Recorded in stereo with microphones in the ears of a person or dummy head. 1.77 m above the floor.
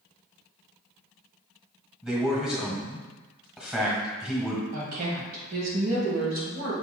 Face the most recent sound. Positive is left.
turn(degrees=-55)  # may be behind; listen again after turning